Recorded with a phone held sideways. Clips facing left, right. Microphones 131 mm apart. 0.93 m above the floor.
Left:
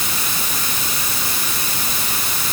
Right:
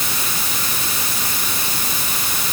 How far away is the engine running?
I don't hear an engine running.